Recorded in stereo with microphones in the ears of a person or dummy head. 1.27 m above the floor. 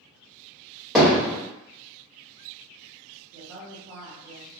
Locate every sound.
0.9 s hammering: 5° right (ahead or behind), 1.1 m
3.3 s a woman speaking: 60° right (ahead or behind), 1.0 m